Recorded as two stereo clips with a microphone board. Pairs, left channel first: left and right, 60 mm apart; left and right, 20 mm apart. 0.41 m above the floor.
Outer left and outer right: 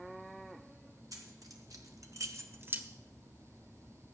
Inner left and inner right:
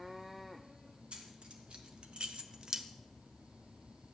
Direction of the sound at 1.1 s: 75° right (ahead or behind).